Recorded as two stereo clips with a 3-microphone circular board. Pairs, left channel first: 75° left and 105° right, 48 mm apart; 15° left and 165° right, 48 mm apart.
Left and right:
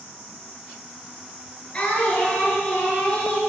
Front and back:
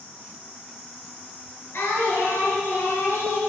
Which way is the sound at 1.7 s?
20° left.